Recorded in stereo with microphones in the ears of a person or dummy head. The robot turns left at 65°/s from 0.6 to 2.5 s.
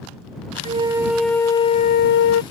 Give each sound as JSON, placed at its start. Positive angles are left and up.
{"t": 0.7, "sound": "a flute", "azimuth_deg": -145}